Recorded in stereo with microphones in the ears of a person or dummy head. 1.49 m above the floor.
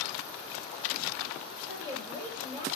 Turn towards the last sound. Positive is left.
turn(degrees=-30)  # may be behind; listen again after turning